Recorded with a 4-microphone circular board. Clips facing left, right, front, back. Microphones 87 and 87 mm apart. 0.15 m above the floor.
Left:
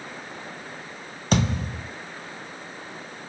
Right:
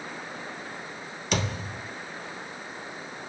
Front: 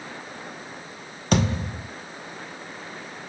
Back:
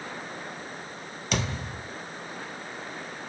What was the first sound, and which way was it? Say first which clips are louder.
A thud: left 6 dB, front 8 dB; 45° left.